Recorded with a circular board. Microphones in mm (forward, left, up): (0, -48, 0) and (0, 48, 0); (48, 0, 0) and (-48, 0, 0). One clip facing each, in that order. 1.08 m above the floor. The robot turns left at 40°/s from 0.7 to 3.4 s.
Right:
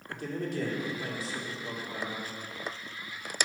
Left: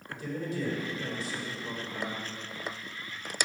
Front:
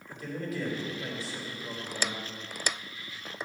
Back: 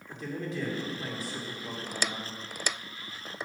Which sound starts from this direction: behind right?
A man speaking, at 0.1 s.